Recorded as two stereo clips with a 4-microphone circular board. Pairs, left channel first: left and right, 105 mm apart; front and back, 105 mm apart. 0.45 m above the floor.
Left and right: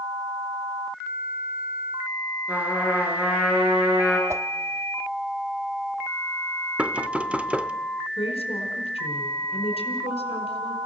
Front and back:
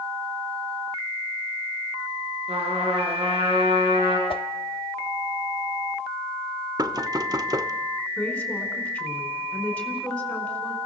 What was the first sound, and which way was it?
A trumpet, 165° right.